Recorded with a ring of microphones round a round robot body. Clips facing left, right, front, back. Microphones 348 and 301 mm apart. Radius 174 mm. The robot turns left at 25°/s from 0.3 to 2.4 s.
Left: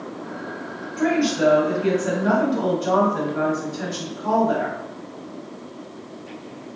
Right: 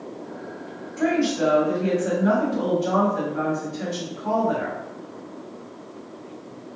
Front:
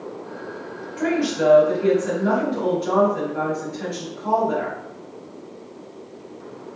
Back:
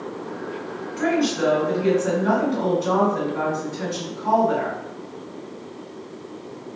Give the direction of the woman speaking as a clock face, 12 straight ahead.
6 o'clock.